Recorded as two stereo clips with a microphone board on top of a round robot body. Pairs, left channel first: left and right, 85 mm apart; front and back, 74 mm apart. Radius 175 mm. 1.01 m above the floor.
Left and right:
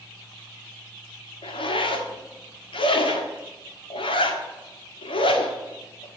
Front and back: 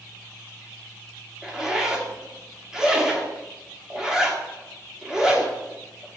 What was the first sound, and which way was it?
A zipper, 95° left.